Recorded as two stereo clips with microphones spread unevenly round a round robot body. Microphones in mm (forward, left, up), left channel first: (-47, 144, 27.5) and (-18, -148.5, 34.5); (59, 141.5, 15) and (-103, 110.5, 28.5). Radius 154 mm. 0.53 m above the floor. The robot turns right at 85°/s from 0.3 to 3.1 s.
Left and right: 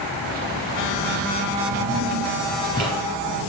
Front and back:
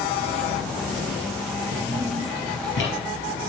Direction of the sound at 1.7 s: 110° right.